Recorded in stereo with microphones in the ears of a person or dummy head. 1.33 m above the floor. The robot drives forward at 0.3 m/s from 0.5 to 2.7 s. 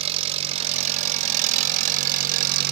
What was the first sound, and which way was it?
An engine running, 35° right (ahead or behind).